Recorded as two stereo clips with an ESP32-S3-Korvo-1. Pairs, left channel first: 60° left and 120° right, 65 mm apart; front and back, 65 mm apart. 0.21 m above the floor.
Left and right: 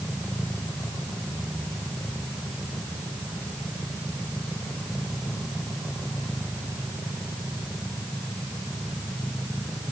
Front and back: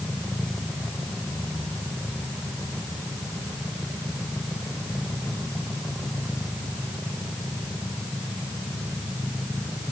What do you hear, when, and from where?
Only background noise.